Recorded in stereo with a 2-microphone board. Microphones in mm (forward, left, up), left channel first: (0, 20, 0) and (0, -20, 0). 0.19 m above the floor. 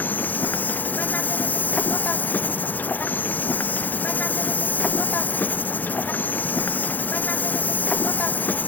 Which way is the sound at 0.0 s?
45° left (ahead or behind).